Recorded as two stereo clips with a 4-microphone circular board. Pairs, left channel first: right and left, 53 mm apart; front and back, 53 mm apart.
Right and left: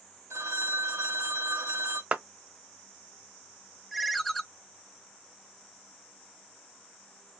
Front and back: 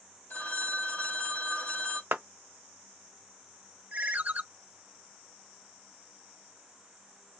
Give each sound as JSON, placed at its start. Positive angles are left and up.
{"t": 0.3, "sound": "a phone ringing", "azimuth_deg": 60, "distance_m": 2.0}
{"t": 2.1, "sound": "a clap", "azimuth_deg": 145, "distance_m": 0.8}
{"t": 3.9, "sound": "a ringtone", "azimuth_deg": 175, "distance_m": 0.6}